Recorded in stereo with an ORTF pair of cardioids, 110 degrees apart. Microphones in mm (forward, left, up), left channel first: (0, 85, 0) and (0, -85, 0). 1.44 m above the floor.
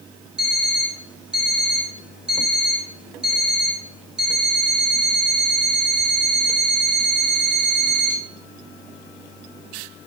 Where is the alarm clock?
5° right, 3 m.